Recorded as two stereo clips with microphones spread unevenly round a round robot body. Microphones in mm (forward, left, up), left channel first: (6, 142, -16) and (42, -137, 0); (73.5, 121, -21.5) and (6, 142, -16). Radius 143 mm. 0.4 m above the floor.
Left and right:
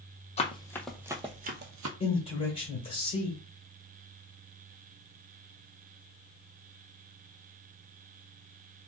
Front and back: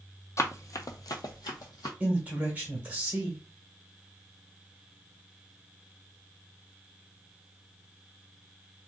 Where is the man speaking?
120° left, 1.5 m.